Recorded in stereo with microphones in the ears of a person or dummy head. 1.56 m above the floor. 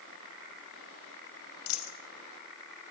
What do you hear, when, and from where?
1.7 s a dropped coin: 80° left, 5 m